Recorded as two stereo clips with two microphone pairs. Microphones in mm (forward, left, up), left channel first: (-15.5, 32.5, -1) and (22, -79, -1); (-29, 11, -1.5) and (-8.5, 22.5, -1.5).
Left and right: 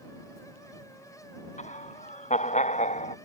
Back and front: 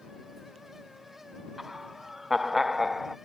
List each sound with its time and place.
1.6 s laughter: 105° left; by 3.2 s 110° left